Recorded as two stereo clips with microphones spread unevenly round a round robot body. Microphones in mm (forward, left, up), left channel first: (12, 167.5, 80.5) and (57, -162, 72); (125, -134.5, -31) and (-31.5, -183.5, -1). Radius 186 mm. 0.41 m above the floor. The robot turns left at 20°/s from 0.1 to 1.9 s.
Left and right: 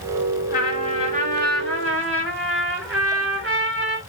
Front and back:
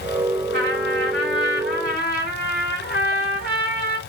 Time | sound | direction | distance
0.5 | a trumpet | 35° left | 3.5 m